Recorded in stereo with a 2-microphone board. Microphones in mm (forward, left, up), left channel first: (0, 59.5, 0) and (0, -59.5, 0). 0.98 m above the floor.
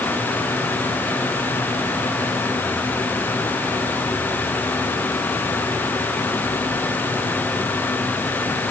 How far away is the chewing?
No chewing in this recording.